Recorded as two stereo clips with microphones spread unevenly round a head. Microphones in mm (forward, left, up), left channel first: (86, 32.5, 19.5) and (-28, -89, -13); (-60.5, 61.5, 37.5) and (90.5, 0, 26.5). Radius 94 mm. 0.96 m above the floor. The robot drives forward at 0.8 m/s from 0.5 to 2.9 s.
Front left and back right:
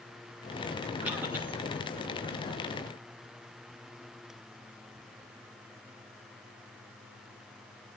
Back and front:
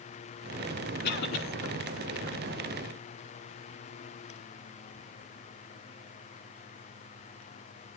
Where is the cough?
145° left, 2.5 m; by 1.4 s 150° left, 3 m.